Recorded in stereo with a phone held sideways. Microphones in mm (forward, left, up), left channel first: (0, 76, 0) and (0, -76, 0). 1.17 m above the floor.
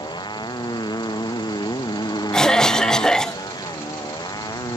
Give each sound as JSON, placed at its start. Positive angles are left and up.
{"t": 0.0, "sound": "a motorcycle", "side_deg": 30}
{"t": 2.3, "sound": "a cough", "side_deg": 5}